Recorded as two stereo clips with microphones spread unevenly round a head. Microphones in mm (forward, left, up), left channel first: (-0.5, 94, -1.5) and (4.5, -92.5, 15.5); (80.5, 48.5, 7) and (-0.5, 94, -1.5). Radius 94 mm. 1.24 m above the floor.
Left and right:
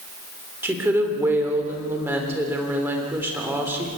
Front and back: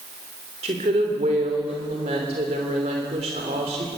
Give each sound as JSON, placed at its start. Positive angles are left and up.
{"t": 0.6, "sound": "a woman speaking", "azimuth_deg": -170, "distance_m": 3.5}